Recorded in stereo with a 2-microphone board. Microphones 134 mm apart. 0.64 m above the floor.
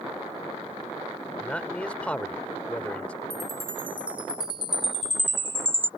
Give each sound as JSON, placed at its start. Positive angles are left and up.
{"t": 1.4, "sound": "a man speaking", "side_deg": 10}
{"t": 3.3, "sound": "a chime", "side_deg": -40}